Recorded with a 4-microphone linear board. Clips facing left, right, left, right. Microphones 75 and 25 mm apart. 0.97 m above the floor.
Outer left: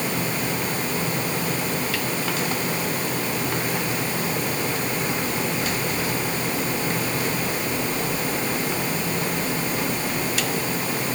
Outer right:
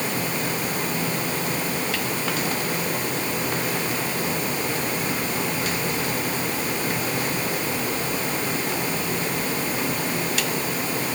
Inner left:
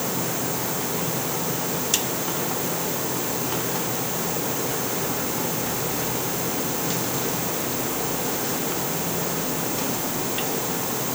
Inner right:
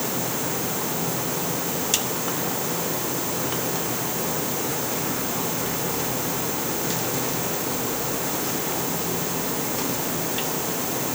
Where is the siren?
I don't hear a siren.